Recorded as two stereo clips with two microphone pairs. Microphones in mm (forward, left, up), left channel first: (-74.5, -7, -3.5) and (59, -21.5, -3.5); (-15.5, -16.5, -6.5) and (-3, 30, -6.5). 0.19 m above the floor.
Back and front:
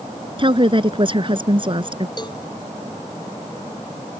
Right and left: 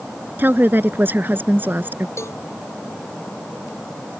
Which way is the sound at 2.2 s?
130° right.